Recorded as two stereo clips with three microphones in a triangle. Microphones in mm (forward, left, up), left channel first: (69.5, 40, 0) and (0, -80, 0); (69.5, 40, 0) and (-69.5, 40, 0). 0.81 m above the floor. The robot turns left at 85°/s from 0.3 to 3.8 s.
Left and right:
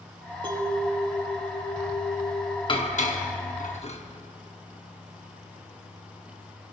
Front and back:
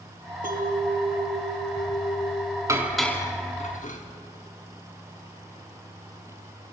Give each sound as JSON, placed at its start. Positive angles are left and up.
{"t": 0.4, "sound": "a clink", "azimuth_deg": -170, "distance_m": 1.0}
{"t": 2.7, "sound": "dishes clattering", "azimuth_deg": 115, "distance_m": 1.1}